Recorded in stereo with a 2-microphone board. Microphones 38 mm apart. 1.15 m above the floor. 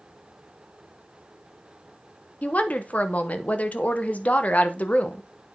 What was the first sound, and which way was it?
A woman speaking, 40° left (ahead or behind).